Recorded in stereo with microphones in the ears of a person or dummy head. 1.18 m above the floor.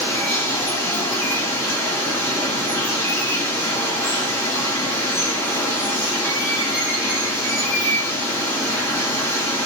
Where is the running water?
5° left (ahead or behind), 1.9 m.